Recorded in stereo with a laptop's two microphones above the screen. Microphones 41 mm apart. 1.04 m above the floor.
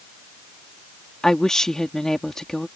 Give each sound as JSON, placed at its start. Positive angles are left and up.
{"t": 1.2, "sound": "a woman speaking", "side_deg": 15}